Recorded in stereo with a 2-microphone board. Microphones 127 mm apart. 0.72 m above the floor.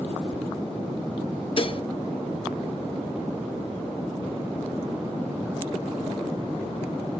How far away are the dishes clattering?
About 0.7 m.